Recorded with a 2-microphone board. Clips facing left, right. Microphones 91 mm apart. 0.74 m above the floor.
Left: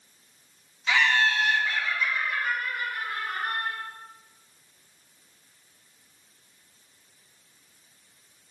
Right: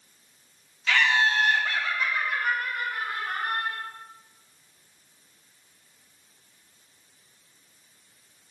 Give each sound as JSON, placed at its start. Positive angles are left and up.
{"t": 0.9, "sound": "laughter", "side_deg": 20, "distance_m": 0.7}